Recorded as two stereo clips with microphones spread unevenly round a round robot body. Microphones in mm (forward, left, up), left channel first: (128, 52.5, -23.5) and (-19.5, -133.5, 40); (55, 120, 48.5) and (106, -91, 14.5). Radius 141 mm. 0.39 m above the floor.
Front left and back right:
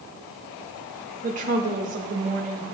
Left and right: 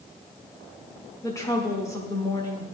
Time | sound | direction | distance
1.2 | a woman speaking | straight behind | 0.9 m